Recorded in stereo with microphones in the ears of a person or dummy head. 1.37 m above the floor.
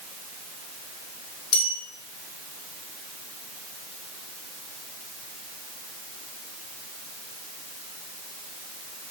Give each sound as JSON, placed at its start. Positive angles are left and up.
{"t": 1.5, "sound": "a bell", "side_deg": 70, "distance_m": 2.0}